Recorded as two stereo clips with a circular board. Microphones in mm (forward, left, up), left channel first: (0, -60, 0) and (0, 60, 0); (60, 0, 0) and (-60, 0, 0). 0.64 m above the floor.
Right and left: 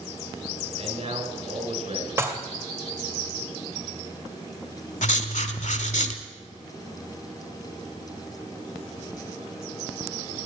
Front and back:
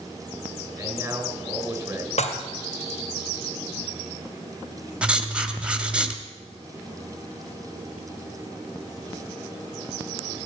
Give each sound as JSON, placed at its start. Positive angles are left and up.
{"t": 0.8, "sound": "a man speaking", "azimuth_deg": 110, "distance_m": 3.0}
{"t": 2.2, "sound": "dishes clattering", "azimuth_deg": 20, "distance_m": 1.9}
{"t": 5.0, "sound": "writing", "azimuth_deg": -100, "distance_m": 1.4}